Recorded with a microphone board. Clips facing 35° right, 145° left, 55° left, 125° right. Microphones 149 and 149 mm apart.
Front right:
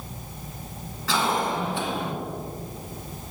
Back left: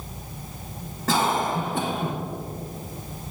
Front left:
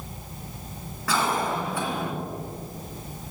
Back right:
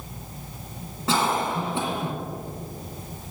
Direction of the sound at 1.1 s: 175° left.